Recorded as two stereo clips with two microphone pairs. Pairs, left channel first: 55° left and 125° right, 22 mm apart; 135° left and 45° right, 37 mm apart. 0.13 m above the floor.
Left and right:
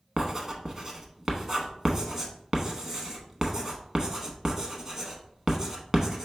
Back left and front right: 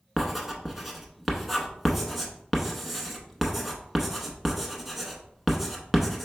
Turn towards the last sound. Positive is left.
turn(degrees=-120)